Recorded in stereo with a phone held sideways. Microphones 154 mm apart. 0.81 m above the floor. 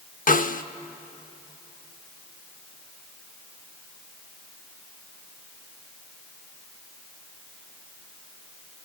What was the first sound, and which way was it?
A snare drum, 60° left (ahead or behind).